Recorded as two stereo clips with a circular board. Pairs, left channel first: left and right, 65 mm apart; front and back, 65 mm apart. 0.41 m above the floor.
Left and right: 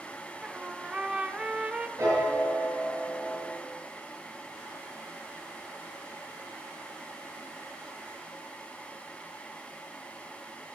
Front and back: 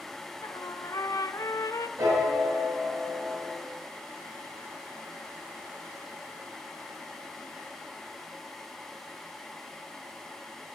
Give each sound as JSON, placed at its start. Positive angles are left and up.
{"t": 0.4, "sound": "a trumpet", "azimuth_deg": -20, "distance_m": 0.7}
{"t": 2.0, "sound": "a piano", "azimuth_deg": -135, "distance_m": 5.0}